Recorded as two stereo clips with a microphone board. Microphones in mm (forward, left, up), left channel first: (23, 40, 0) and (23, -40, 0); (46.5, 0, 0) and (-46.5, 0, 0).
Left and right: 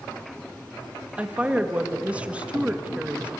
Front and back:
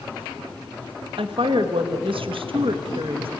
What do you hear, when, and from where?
1.2 s a woman speaking: 165° right, 1.6 m